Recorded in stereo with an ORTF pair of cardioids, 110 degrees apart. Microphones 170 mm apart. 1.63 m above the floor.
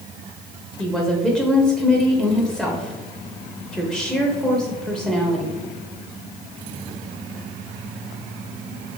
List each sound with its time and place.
0.8 s a woman speaking: 5° right, 0.7 m